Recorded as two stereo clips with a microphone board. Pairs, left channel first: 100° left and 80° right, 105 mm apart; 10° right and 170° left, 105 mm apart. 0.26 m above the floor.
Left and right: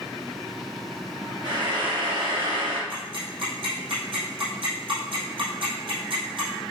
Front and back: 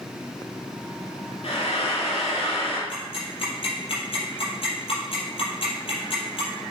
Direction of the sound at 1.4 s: 35° right.